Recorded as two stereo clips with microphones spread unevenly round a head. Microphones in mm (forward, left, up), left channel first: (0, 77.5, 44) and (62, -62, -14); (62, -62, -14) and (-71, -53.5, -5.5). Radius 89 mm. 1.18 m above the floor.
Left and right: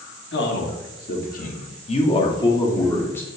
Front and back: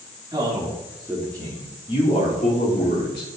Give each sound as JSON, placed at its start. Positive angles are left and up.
{"t": 0.3, "sound": "a man speaking", "azimuth_deg": 105, "distance_m": 2.5}